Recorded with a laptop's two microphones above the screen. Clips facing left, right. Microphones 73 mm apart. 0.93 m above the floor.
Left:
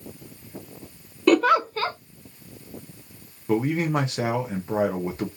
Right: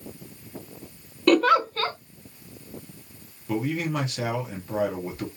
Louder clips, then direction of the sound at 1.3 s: Left 1 dB; 5° left (ahead or behind).